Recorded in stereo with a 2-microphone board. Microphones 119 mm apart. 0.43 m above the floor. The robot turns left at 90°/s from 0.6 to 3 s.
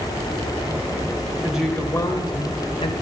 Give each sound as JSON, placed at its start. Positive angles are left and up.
{"t": 1.4, "sound": "a woman speaking", "azimuth_deg": -160, "distance_m": 1.8}